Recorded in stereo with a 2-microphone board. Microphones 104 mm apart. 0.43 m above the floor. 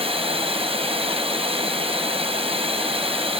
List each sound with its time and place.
0.0 s running water: 60° right (ahead or behind), 2.5 m